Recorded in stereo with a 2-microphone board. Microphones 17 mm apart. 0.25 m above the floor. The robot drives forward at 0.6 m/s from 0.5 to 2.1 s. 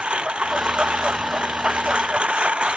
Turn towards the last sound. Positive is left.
turn(degrees=-85)